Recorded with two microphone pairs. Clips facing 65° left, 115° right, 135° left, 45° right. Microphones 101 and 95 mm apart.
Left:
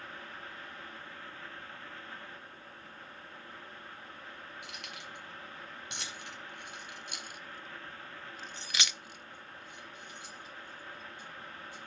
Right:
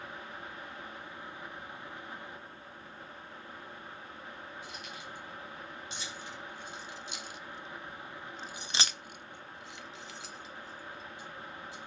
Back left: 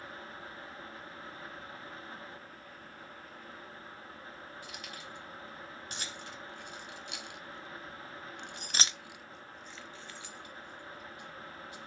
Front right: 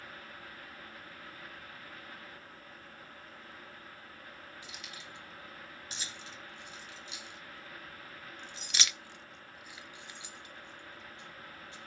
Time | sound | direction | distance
4.6 | keys jangling | 90° left | 3 m